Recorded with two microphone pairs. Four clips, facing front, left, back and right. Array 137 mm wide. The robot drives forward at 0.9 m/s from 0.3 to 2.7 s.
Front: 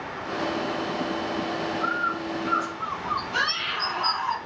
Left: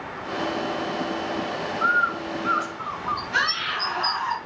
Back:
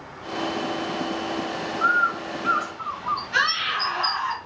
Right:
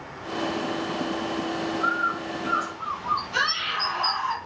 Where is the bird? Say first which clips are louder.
Left 6 dB, back 5 dB; 155° left, 6 m; by 4.3 s 160° left, 7 m.